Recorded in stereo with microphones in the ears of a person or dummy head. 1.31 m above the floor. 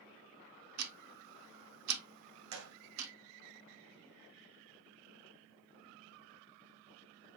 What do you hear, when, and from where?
0.8 s ticking: 75° right (ahead or behind), 0.8 m
2.5 s a gunshot: 80° right, 0.8 m